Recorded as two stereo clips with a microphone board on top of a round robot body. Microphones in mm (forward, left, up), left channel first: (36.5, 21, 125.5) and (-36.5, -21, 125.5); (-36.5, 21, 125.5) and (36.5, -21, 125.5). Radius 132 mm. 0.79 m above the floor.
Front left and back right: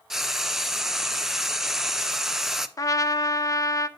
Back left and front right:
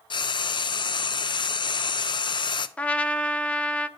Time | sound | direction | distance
0.1 | frying | 125° left | 0.6 m
2.8 | a trumpet | 75° left | 0.7 m